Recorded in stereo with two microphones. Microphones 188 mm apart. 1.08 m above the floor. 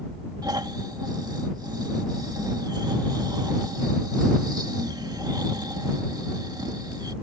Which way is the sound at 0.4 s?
25° right (ahead or behind).